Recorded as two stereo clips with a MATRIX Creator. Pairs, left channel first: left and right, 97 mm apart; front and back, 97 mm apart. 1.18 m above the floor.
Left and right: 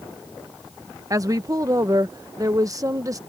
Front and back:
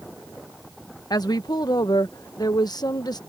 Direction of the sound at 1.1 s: 40° right.